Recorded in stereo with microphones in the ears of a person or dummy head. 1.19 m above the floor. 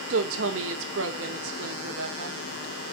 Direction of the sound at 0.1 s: 70° right (ahead or behind).